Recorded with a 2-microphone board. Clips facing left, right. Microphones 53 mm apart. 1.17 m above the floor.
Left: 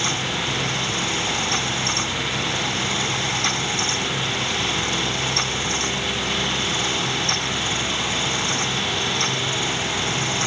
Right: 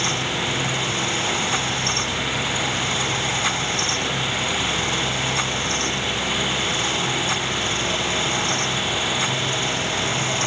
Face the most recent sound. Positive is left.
No sound to turn to.